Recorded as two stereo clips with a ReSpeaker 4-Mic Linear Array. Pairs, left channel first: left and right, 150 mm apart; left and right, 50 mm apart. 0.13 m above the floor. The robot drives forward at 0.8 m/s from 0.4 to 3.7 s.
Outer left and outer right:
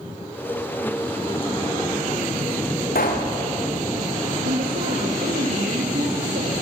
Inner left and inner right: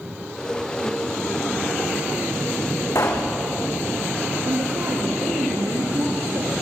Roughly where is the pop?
Left.